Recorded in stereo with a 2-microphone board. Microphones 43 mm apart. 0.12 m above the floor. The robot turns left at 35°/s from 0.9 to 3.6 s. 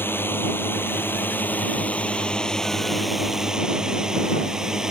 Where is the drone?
60° left (ahead or behind); by 4.9 s 10° right (ahead or behind).